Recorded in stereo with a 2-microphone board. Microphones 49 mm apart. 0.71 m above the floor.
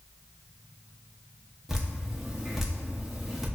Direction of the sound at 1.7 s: 10° right (ahead or behind).